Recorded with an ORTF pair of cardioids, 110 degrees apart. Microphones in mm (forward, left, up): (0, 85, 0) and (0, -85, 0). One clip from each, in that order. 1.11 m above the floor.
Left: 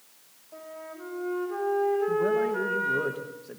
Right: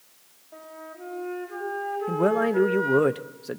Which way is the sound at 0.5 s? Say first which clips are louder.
Even; straight ahead.